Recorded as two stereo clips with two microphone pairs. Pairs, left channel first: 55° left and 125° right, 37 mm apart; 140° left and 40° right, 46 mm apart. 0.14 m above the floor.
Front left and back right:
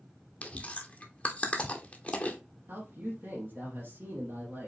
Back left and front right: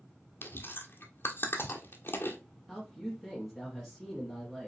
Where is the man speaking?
140° right, 2.5 m.